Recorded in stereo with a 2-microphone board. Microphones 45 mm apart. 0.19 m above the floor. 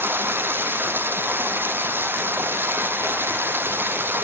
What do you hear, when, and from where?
0.0 s running water: 50° right (ahead or behind), 1.8 m